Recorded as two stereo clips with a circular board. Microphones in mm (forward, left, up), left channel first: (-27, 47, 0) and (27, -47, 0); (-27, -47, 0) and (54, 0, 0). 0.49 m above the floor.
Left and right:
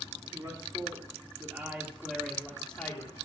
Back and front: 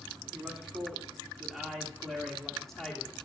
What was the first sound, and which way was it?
A man speaking, 50° right.